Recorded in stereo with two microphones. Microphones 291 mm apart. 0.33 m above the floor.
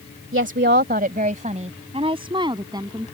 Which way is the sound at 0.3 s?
40° right (ahead or behind).